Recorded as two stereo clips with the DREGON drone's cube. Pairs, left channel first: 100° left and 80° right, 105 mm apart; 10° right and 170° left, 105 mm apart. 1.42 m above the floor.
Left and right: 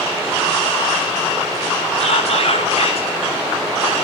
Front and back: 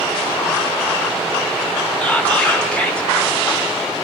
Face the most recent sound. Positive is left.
turn(degrees=70)